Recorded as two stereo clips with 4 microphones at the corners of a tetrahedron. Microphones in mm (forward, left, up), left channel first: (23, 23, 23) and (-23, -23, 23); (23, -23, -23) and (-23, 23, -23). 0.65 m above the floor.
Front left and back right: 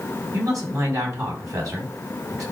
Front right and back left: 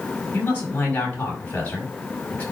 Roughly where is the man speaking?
Right.